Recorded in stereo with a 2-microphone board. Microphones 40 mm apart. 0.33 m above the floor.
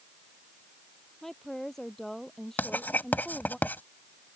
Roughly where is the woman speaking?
Centre.